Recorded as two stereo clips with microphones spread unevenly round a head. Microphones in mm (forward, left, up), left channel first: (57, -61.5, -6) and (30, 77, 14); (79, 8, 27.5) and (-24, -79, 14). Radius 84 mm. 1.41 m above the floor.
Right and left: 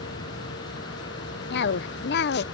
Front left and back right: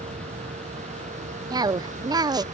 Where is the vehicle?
95° right; by 2.5 s 105° right.